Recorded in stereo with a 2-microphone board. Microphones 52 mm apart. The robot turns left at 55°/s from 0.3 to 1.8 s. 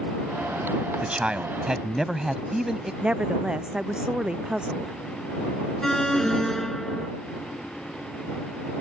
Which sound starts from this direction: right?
A man speaking, at 1.0 s.